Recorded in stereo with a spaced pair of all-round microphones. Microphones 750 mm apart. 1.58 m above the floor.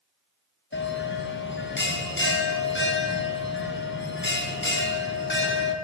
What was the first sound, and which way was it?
A bell, 15° left (ahead or behind).